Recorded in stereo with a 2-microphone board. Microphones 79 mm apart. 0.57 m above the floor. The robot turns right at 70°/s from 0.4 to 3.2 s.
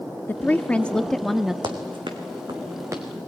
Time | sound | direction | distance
0.3 | a woman speaking | 20° left (ahead or behind) | 0.6 m
1.6 | running footsteps | 65° right (ahead or behind) | 1.9 m